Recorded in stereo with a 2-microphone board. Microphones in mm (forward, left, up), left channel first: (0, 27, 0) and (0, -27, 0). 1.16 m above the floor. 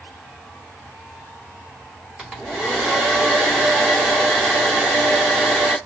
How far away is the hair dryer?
About 2.5 m.